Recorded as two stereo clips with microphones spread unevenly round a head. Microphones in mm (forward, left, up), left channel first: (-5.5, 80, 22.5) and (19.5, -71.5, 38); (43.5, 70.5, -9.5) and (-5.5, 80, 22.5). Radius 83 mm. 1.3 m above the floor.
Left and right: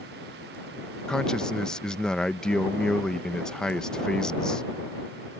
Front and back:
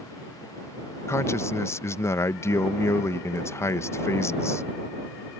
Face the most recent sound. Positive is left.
turn(degrees=15)